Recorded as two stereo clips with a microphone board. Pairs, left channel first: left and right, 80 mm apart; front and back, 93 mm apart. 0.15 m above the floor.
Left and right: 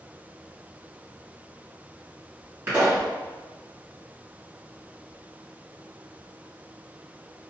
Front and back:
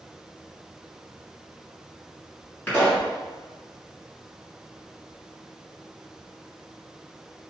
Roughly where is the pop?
Ahead right.